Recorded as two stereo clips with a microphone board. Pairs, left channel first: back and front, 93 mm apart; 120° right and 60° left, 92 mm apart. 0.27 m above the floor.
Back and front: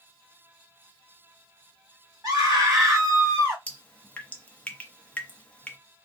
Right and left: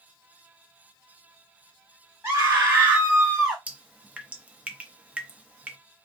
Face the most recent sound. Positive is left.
turn(degrees=120)